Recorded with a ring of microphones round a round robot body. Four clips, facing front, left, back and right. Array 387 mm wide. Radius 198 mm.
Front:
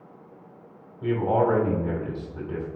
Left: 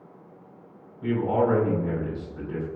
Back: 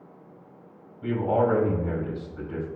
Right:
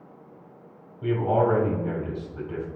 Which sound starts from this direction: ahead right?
A man speaking, at 1.0 s.